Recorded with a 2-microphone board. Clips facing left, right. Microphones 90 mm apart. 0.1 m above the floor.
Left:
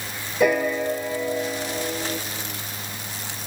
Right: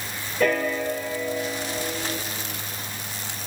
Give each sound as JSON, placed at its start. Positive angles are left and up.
{"t": 0.4, "sound": "a piano", "side_deg": 10, "distance_m": 1.8}